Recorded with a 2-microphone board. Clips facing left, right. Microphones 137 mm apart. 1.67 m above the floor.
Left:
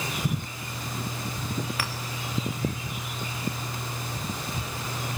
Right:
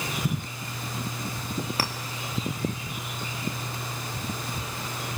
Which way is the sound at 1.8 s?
35° right (ahead or behind).